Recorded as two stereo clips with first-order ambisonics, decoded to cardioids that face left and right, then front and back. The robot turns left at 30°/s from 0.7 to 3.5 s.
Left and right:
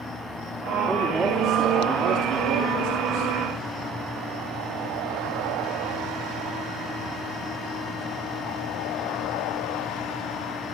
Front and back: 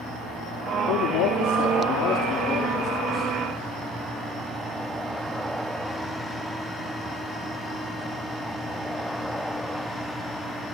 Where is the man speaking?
5° right, 3 m; by 3.3 s 80° right, 3 m.